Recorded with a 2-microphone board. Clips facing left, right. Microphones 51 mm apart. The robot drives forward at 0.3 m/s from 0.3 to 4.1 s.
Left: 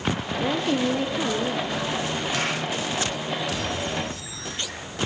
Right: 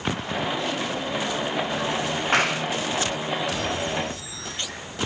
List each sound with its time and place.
0.4 s a woman speaking: 40° left (ahead or behind), 3.5 m
2.3 s a clap: 60° right (ahead or behind), 7 m